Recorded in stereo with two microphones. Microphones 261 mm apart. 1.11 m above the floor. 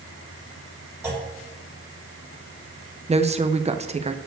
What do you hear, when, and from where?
1.0 s a clunk: 10° right (ahead or behind), 2.5 m
3.1 s a woman speaking: 25° right (ahead or behind), 0.6 m